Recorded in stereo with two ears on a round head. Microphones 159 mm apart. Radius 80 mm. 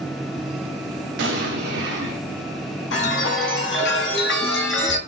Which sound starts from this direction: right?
An explosion, at 1.2 s.